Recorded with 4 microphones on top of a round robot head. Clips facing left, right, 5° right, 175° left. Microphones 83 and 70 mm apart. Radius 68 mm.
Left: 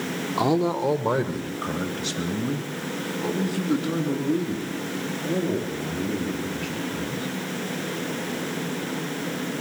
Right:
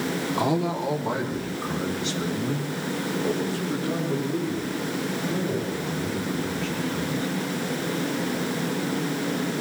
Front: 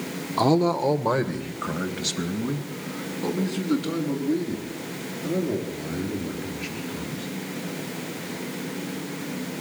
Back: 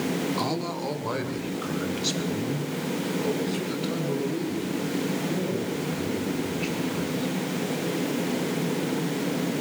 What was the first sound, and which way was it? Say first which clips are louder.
A man speaking: left 4 dB, front 8 dB; 20° left.